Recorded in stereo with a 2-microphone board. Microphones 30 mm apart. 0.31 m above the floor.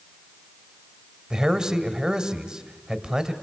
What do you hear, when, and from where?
1.3 s a man speaking: 20° right (ahead or behind), 1.7 m